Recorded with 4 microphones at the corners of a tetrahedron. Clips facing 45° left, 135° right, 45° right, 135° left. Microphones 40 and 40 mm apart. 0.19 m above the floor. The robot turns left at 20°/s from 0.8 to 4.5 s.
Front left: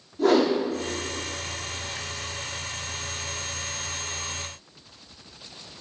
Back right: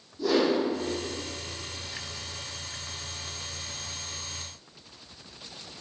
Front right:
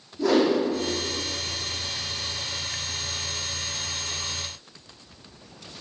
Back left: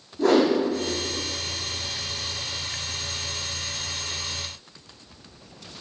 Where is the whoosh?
90° left, 2.5 m.